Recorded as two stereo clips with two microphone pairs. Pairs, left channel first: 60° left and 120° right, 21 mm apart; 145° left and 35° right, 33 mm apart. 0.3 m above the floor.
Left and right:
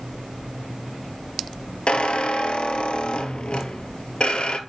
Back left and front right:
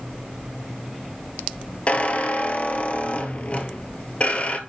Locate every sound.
1.9 s a squeak: 95° left, 1.0 m